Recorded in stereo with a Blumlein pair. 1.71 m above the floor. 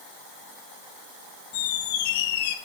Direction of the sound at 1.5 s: 50° left.